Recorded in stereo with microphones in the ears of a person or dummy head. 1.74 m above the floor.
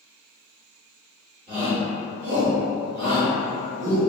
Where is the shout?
25° right (ahead or behind), 0.9 m; by 4.0 s 30° right (ahead or behind), 1.1 m.